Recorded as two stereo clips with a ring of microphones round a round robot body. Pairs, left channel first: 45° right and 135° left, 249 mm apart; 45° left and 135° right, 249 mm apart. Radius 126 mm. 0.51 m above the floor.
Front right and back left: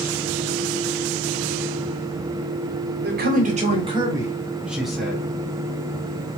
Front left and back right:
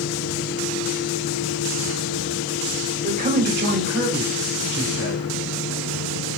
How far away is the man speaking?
About 1.6 m.